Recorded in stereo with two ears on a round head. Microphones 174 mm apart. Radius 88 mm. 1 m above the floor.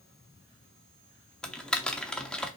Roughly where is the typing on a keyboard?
Centre.